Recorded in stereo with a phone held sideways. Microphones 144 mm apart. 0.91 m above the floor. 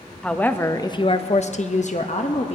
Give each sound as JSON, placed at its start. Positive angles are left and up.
{"t": 0.2, "sound": "a woman speaking", "side_deg": 5, "distance_m": 0.7}